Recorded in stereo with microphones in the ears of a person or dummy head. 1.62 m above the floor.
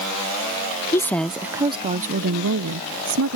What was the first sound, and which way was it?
A woman speaking, 15° left (ahead or behind).